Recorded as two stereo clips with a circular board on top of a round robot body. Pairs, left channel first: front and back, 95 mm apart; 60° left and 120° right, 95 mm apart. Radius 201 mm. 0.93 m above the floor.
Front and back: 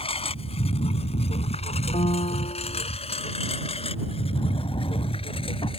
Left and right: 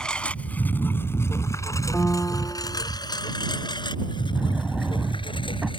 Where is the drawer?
35° right.